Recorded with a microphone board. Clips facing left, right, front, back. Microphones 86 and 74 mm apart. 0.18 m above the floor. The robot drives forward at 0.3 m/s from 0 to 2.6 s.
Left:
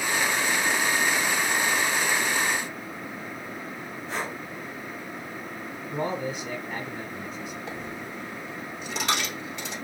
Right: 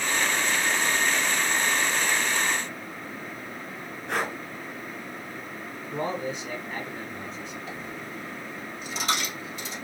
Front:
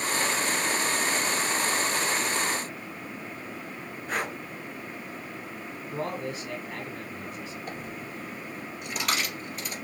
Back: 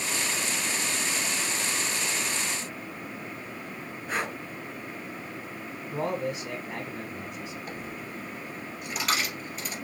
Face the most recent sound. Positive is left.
turn(degrees=95)